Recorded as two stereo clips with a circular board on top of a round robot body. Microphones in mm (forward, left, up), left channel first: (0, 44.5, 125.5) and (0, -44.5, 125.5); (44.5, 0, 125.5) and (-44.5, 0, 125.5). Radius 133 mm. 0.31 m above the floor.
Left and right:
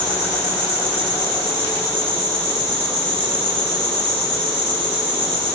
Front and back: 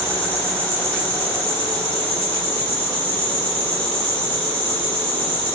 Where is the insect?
170° left, 1.4 m.